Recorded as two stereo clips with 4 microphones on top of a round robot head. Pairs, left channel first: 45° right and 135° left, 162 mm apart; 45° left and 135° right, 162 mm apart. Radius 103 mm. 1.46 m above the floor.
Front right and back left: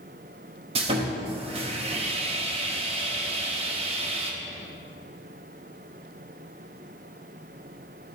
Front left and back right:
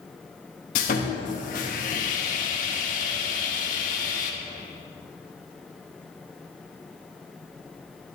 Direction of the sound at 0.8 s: 85° left.